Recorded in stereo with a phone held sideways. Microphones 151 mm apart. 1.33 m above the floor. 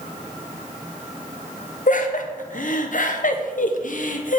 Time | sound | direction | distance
1.9 | laughter | 60° left (ahead or behind) | 0.7 m